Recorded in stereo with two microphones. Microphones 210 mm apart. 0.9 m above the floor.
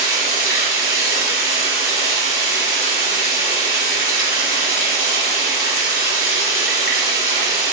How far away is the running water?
About 1.8 m.